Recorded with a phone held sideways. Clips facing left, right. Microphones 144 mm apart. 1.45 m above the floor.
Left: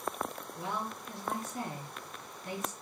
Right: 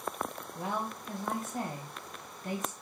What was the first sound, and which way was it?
A woman speaking, 45° right (ahead or behind).